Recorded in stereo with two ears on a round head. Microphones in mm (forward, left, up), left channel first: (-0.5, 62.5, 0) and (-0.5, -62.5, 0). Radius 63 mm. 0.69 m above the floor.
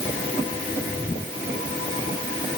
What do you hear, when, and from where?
Only background noise.